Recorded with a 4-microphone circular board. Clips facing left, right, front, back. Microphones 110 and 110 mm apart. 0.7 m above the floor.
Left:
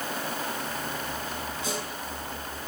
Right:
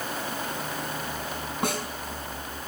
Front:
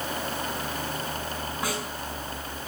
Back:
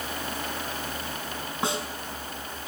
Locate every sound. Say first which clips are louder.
1.6 s a snare drum: right 6 dB, back 3 dB; 115° right, 6 m